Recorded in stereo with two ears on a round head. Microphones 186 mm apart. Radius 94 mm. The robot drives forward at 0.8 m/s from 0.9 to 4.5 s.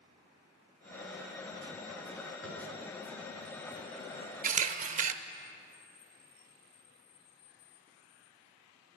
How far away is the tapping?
About 3.5 m.